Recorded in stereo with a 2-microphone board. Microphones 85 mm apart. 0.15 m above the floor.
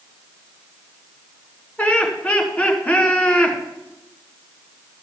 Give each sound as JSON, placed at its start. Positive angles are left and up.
{"t": 1.8, "sound": "laughter", "side_deg": 15, "distance_m": 2.0}